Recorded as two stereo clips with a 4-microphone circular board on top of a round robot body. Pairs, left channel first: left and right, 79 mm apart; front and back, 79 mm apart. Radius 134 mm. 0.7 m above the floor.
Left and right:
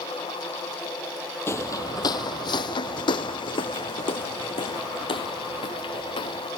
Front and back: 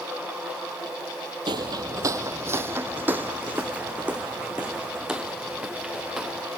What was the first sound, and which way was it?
Footsteps, 150° left.